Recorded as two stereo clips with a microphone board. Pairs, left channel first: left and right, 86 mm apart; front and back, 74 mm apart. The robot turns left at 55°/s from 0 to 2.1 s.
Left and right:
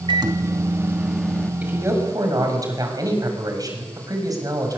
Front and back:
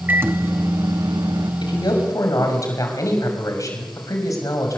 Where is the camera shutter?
No camera shutter in this recording.